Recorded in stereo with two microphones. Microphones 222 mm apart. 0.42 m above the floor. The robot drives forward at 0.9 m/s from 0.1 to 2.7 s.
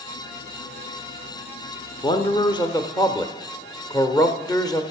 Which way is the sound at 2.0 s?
20° left (ahead or behind).